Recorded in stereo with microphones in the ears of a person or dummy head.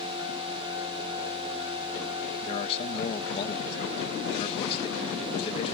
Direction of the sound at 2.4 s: 35° left (ahead or behind).